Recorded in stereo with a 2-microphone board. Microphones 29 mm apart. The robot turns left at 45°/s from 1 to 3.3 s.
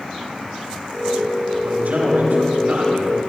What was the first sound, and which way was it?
A man speaking, 75° right.